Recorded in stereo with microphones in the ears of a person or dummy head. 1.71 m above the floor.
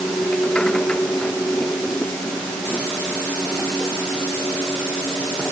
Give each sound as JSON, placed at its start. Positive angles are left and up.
{"t": 0.0, "sound": "a machine running", "side_deg": 5}